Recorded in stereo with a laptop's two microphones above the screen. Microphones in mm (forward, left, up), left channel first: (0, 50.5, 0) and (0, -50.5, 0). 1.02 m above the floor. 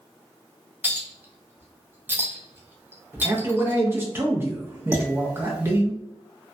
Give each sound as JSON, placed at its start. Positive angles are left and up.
{"t": 0.8, "sound": "a clink", "side_deg": -20, "distance_m": 0.6}
{"t": 3.2, "sound": "a man speaking", "side_deg": -20, "distance_m": 0.5}
{"t": 4.9, "sound": "dishes clattering", "side_deg": -15, "distance_m": 0.8}